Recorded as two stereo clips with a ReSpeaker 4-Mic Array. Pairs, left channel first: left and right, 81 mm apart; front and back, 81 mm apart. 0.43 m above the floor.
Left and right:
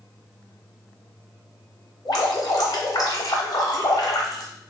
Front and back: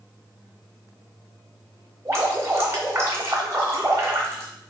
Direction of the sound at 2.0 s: 125° left.